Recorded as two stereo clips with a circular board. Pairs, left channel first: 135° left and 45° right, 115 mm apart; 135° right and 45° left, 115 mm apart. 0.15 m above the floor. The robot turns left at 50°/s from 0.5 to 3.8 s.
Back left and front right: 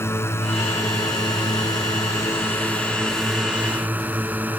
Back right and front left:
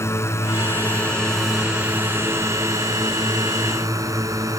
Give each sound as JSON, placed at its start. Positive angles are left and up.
{"t": 0.0, "sound": "a drone", "azimuth_deg": -175}